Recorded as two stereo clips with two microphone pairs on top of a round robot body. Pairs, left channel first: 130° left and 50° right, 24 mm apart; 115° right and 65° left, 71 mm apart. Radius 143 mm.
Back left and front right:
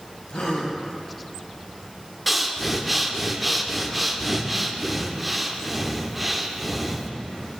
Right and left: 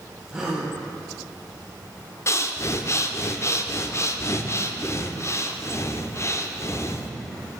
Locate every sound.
0.3 s a gasp: 145° left, 2.5 m
2.3 s breathing: 130° right, 1.1 m